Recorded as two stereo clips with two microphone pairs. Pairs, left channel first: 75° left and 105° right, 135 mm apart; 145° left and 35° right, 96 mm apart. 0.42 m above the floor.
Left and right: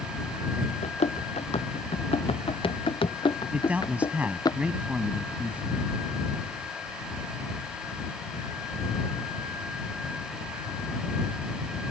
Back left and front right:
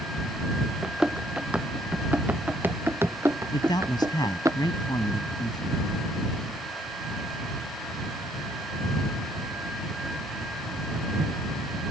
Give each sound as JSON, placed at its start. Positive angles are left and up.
{"t": 0.8, "sound": "running footsteps", "azimuth_deg": 50}
{"t": 3.5, "sound": "a man speaking", "azimuth_deg": 180}